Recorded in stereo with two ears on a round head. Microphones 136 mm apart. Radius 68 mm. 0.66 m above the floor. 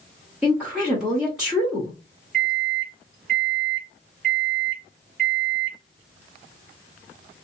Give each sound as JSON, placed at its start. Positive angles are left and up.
{"t": 0.4, "sound": "a woman speaking", "side_deg": -5, "distance_m": 0.9}
{"t": 2.3, "sound": "a microwave", "side_deg": -60, "distance_m": 1.6}